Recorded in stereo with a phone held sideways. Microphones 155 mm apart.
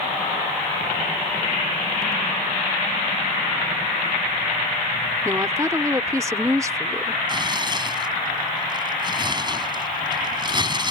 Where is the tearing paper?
30° right (ahead or behind).